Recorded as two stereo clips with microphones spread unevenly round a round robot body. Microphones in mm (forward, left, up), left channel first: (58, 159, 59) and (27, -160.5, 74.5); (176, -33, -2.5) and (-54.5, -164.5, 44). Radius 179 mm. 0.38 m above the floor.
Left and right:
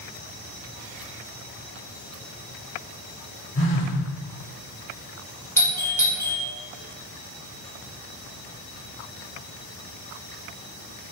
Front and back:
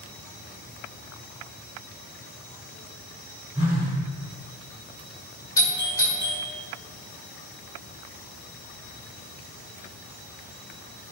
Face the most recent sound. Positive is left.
turn(degrees=20)